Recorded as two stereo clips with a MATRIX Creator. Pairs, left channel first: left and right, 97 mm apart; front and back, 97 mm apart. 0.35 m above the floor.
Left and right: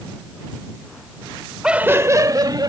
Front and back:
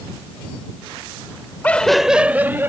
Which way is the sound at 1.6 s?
25° right.